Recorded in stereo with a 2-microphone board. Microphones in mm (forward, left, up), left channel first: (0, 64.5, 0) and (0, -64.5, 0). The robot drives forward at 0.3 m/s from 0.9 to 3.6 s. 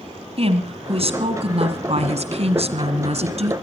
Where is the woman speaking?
50° right (ahead or behind), 2 m; by 3.5 s 55° right (ahead or behind), 2.0 m.